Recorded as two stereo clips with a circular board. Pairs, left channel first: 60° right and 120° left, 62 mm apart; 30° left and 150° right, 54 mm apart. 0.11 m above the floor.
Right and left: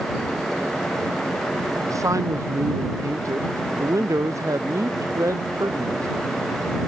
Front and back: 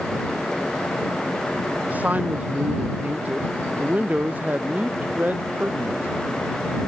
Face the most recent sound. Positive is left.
turn(degrees=150)